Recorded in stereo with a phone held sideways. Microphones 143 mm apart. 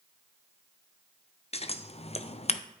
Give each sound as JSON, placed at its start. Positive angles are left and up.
{"t": 1.5, "sound": "scissors", "side_deg": 45, "distance_m": 0.5}